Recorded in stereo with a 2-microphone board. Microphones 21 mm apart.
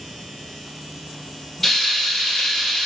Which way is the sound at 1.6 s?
10° left (ahead or behind).